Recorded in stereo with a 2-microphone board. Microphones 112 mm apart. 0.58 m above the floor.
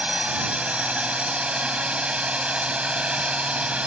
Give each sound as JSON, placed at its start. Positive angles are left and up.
{"t": 0.0, "sound": "a drone", "side_deg": -10}